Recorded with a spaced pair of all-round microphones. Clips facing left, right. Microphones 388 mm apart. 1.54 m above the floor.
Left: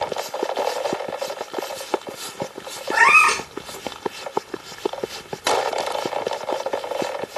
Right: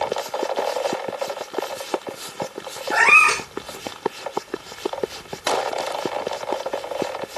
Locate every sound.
2.9 s a cat meowing: 10° left (ahead or behind), 1.2 m